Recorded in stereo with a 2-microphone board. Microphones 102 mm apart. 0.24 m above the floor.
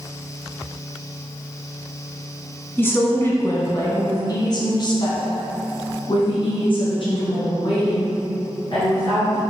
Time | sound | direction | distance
2.8 | a woman speaking | 20° left (ahead or behind) | 2 m